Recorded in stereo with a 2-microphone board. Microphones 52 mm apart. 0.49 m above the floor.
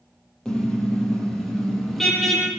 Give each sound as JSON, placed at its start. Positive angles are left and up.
{"t": 0.5, "sound": "a car horn", "side_deg": 10, "distance_m": 8.5}